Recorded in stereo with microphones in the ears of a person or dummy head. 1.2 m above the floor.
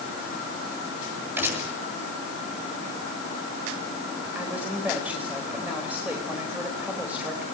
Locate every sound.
1.4 s a gunshot: 10° right (ahead or behind), 8.5 m
4.3 s a woman speaking: 5° right (ahead or behind), 5 m